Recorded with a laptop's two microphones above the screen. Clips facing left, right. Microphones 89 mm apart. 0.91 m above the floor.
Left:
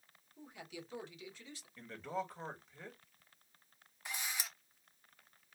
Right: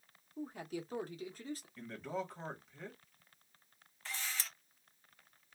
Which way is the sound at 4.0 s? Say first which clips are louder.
Even; 15° left (ahead or behind).